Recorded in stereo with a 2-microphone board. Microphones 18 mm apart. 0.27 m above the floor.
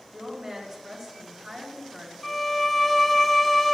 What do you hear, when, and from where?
0.1 s a woman speaking: 45° right (ahead or behind), 3 m
2.2 s a violin: 5° left (ahead or behind), 0.7 m